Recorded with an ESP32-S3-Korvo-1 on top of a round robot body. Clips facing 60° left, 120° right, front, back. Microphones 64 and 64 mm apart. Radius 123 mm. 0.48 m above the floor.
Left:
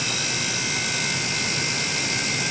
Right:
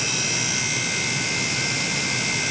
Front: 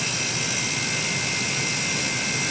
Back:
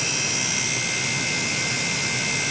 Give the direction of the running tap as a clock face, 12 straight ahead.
No running tap in this recording.